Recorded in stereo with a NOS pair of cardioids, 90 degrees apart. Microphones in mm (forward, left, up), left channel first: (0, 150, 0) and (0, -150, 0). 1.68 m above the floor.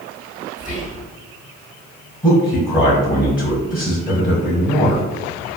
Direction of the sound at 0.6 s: 25° left.